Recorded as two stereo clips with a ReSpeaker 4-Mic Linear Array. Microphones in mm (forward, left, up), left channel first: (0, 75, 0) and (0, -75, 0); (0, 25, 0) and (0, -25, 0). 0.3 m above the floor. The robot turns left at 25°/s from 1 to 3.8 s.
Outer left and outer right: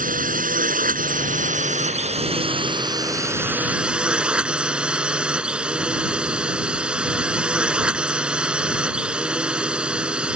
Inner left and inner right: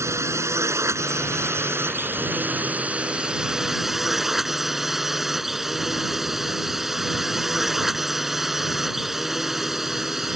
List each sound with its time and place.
0.0 s a drone: 105° right; by 10.4 s 175° right